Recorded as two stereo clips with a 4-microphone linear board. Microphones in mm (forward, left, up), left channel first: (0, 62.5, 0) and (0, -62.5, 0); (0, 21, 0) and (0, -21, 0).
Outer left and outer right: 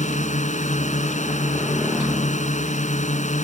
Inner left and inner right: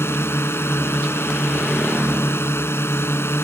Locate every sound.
0.0 s a drone: 75° left (ahead or behind)